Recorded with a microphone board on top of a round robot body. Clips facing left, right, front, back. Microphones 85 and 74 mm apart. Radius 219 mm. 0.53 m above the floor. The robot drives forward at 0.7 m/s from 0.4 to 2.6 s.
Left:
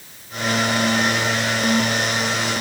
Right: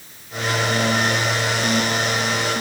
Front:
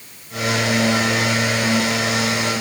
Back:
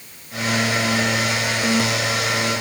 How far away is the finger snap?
I don't hear a finger snap.